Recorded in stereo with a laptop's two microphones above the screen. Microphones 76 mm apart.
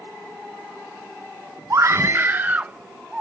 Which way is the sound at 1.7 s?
40° right (ahead or behind).